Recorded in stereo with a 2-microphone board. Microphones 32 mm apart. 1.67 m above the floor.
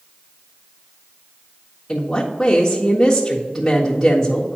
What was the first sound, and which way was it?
A woman speaking, 5° left (ahead or behind).